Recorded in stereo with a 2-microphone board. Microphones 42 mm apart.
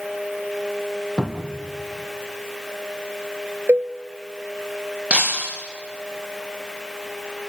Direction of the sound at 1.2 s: 20° left (ahead or behind).